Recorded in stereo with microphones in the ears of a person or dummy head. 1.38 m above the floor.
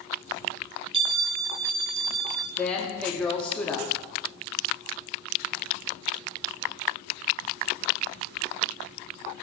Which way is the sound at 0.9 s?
30° right (ahead or behind).